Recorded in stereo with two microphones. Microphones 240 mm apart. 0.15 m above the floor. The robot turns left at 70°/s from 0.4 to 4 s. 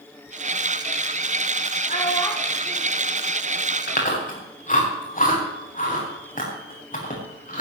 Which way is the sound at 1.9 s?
40° left.